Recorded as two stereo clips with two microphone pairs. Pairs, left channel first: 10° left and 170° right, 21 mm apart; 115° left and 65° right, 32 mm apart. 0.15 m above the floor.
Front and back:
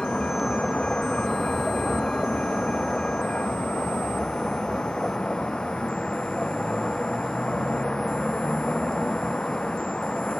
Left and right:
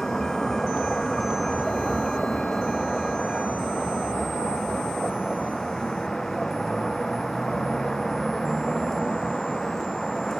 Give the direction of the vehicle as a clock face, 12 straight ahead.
11 o'clock.